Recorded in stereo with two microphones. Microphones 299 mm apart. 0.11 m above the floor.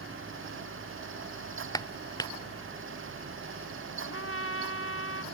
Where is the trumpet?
50° left (ahead or behind).